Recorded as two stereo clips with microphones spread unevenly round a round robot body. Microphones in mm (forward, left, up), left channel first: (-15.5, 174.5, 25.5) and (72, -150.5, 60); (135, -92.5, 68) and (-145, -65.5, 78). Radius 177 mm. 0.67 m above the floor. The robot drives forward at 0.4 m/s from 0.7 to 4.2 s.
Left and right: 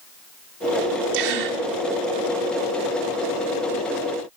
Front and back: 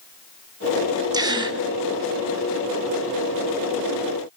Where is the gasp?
110° right, 3 m.